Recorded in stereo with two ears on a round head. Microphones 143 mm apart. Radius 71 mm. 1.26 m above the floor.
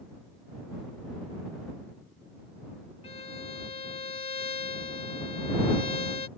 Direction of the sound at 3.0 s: 40° left (ahead or behind).